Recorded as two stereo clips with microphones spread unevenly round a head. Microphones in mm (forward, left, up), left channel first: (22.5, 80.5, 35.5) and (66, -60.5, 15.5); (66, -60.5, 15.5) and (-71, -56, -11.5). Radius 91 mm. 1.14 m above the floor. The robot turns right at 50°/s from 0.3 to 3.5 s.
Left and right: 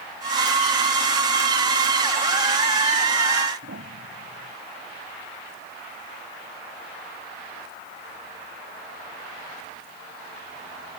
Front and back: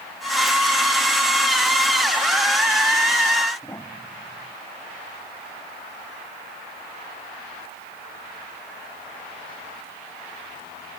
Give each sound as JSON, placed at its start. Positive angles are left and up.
{"t": 3.6, "sound": "a piano", "azimuth_deg": -75}